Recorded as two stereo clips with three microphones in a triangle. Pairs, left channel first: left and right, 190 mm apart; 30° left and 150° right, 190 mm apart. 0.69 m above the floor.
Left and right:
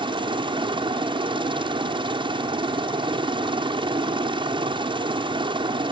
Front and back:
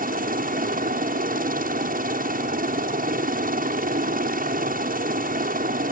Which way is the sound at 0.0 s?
145° right.